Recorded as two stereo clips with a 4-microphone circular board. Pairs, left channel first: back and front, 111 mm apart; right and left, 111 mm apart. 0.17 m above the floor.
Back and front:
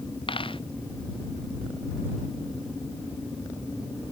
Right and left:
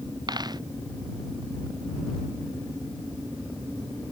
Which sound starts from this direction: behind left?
A dropped coin, at 0.3 s.